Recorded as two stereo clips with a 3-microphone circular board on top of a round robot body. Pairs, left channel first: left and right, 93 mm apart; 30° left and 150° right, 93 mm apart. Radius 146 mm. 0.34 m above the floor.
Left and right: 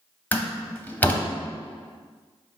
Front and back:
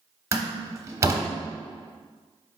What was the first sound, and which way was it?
A door slam, 160° left.